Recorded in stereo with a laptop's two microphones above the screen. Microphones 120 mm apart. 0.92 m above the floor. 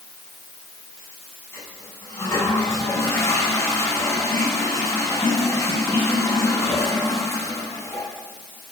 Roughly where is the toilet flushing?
Left.